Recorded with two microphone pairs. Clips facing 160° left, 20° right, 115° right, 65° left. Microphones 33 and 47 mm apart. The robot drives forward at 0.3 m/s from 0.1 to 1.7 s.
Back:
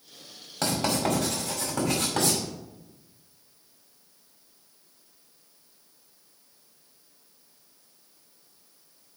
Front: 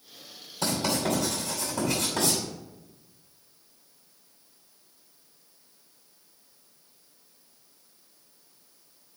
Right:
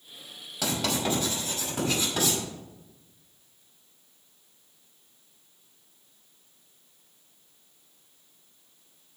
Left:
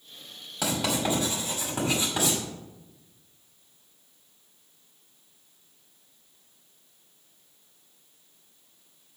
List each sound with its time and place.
0.6 s writing: 145° left, 5 m